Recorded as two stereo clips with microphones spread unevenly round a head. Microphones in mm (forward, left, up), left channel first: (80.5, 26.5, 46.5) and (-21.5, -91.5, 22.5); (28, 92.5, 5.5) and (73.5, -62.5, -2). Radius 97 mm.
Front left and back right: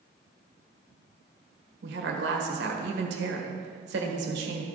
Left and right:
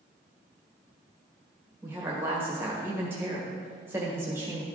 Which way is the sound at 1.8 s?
155° right.